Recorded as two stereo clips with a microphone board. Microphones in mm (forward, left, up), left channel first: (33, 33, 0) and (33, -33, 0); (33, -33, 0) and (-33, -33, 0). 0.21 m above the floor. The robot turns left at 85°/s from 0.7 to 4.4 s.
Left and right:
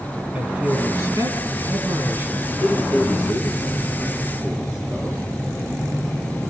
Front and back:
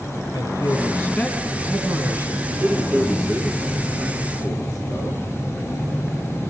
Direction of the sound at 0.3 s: 25° right.